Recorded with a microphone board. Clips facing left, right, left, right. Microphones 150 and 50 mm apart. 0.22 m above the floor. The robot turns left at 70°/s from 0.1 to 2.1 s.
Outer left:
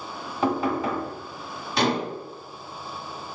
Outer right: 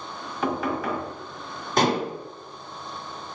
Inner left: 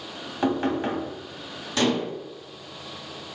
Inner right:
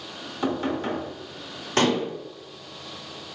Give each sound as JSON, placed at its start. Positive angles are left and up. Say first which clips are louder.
{"t": 0.4, "sound": "knocking", "louder": "outer left 2 dB, inner left 2 dB", "azimuth_deg": 85, "distance_m": 1.3}
{"t": 1.8, "sound": "dishes clattering", "louder": "outer right 2 dB, inner right 2 dB", "side_deg": -45, "distance_m": 1.1}